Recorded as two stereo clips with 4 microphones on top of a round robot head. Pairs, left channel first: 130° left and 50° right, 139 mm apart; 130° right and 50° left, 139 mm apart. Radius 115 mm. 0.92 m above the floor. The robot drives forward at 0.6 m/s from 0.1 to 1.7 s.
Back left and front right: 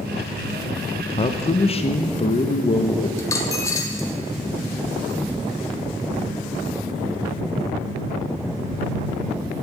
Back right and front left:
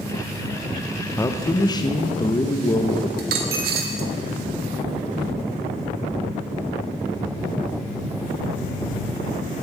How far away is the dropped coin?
About 0.8 m.